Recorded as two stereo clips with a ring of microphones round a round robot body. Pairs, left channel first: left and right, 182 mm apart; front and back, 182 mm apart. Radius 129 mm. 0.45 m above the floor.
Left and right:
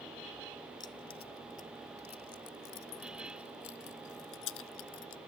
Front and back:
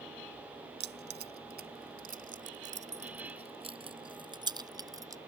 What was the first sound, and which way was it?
Keys jangling, 165° left.